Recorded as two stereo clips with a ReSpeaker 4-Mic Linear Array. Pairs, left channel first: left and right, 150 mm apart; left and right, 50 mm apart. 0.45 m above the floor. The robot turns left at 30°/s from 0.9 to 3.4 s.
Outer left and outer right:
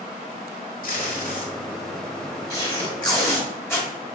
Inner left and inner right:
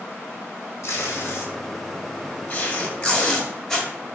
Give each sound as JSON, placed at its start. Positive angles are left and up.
{"t": 0.8, "sound": "tape being pulled", "side_deg": 70, "distance_m": 1.5}